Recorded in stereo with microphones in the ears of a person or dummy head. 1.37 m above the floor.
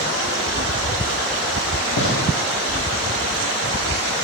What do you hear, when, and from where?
2.0 s a gunshot: 65° left (ahead or behind), 3 m